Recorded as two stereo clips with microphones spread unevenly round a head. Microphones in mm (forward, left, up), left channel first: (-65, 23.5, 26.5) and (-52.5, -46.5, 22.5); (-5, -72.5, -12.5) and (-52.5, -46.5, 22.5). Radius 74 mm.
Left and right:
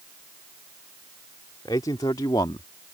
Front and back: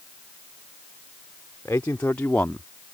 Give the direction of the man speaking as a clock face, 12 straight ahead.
11 o'clock.